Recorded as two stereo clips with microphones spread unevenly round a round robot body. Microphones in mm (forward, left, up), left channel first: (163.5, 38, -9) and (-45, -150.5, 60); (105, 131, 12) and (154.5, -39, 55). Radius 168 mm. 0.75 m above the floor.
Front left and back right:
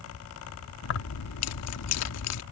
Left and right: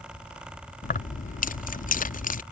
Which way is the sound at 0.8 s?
70° left.